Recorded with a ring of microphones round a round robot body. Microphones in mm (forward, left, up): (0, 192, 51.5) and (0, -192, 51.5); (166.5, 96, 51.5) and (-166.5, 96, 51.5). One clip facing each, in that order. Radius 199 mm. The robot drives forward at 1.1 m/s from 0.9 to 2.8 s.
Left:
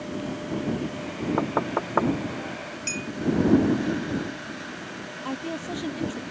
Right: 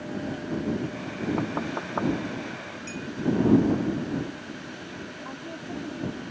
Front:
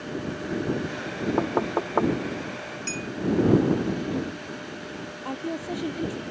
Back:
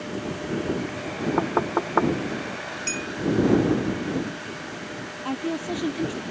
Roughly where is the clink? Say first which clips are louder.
Left 1 dB, back 1 dB; behind left.